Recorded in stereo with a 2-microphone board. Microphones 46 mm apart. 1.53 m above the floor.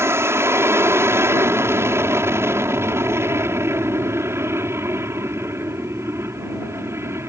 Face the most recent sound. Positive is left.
turn(degrees=-70)  # may be behind; listen again after turning